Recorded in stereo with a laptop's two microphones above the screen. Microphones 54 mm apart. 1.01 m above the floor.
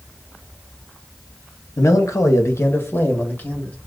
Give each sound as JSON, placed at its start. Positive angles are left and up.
{"t": 1.8, "sound": "a man speaking", "side_deg": 70, "distance_m": 0.9}